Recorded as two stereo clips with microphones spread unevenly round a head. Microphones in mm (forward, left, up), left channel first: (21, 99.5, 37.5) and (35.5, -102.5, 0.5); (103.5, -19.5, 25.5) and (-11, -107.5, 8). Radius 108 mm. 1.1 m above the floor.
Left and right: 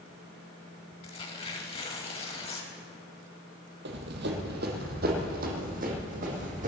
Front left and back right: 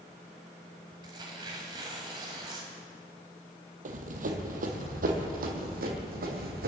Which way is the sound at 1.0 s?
150° left.